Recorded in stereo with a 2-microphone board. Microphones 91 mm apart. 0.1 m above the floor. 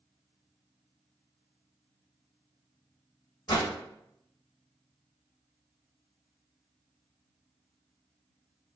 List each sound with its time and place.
3.5 s a whoosh: 55° left (ahead or behind), 1.2 m